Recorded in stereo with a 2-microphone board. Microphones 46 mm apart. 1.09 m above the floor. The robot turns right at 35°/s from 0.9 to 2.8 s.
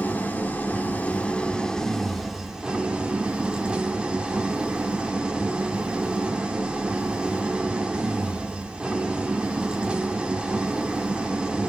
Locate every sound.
0.0 s an engine running: 135° left, 1.2 m; by 11.7 s 155° right, 1.2 m